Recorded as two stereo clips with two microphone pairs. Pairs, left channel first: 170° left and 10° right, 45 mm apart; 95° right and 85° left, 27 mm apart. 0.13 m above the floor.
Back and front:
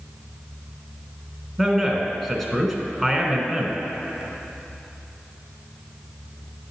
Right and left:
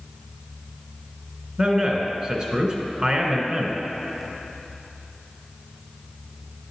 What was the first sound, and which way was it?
A man speaking, 80° left.